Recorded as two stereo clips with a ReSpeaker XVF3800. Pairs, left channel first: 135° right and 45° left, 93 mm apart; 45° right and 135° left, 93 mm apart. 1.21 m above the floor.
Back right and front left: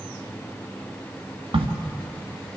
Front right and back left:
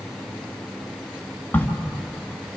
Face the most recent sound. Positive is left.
turn(degrees=25)